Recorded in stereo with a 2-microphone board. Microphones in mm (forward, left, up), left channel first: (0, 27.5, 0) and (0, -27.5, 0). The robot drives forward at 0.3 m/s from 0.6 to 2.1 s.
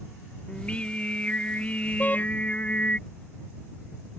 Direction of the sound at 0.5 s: 25° left (ahead or behind).